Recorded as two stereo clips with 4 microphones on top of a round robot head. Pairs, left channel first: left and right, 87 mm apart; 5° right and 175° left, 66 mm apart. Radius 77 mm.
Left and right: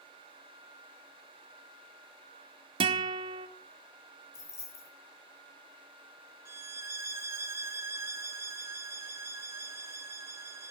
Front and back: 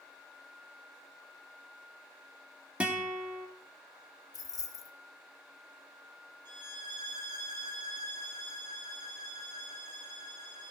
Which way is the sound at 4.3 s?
30° left.